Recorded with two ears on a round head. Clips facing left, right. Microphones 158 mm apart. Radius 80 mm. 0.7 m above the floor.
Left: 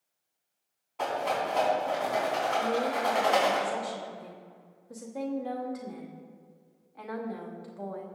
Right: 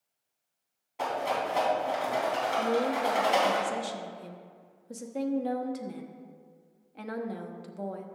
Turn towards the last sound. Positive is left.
turn(degrees=-30)  # may be behind; listen again after turning